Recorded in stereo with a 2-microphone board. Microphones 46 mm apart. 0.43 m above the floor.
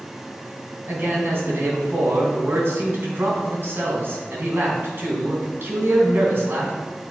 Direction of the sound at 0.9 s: 55° right (ahead or behind).